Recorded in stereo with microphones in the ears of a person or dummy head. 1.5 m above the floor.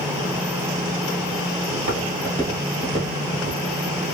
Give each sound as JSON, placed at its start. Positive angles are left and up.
{"t": 1.7, "sound": "footsteps", "side_deg": -40, "distance_m": 2.0}